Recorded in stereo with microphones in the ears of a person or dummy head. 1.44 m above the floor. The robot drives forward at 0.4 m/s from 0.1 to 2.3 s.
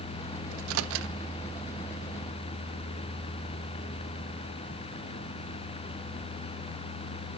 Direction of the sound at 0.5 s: 80° right.